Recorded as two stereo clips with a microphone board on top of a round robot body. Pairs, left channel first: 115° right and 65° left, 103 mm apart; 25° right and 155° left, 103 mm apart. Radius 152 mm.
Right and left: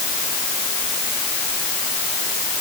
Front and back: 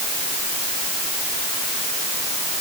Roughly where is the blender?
I don't hear a blender.